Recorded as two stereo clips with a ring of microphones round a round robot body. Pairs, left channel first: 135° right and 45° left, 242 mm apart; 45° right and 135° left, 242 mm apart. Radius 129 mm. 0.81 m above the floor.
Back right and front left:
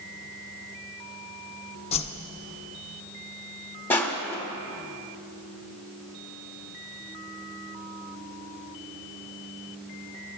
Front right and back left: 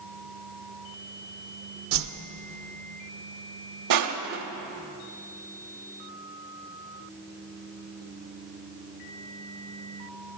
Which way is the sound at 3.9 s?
145° left.